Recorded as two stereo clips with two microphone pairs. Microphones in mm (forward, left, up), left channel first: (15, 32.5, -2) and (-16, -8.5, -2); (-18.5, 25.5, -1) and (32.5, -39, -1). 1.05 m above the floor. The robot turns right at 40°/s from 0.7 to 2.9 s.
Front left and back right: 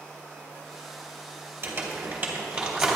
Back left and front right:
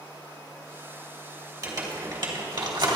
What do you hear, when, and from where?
1.6 s crumpling: 95° right, 2.5 m; by 3.0 s 45° right, 2.5 m